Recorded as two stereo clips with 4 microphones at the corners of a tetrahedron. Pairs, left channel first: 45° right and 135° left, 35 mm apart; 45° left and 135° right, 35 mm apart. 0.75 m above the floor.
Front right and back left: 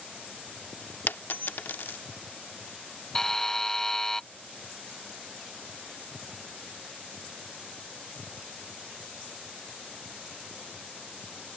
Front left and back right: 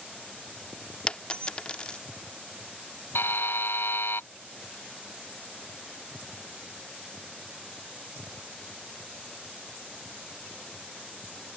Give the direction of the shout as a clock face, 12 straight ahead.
No shout in this recording.